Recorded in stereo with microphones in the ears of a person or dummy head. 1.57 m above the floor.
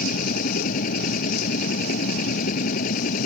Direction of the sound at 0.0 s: 50° left (ahead or behind).